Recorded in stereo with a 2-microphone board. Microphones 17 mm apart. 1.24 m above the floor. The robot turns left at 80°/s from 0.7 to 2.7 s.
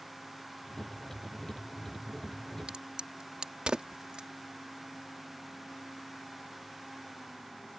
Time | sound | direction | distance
2.7 | a crack | 70° right (ahead or behind) | ?